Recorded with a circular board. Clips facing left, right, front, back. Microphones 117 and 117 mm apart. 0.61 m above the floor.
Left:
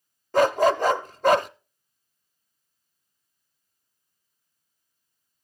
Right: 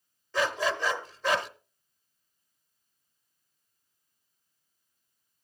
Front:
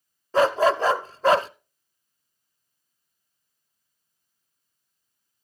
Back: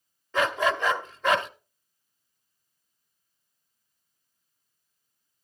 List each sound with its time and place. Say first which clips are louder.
0.3 s a dog barking: left 10 dB, front 6 dB; 55° left, 0.6 m